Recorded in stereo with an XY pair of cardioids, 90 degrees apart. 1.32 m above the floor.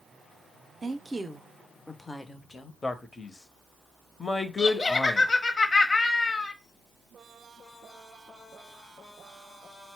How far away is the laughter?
About 1.0 m.